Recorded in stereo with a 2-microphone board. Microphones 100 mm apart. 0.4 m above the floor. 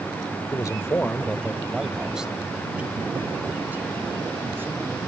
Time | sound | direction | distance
0.5 | a man speaking | 40° left (ahead or behind) | ?